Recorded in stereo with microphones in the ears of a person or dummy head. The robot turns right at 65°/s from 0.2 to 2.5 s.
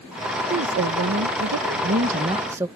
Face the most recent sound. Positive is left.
turn(degrees=-15)